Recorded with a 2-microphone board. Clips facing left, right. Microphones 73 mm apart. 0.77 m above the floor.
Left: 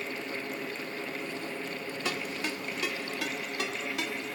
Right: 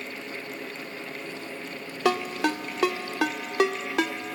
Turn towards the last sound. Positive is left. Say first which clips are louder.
# right 12 dB
turn(degrees=-75)  # may be behind; listen again after turning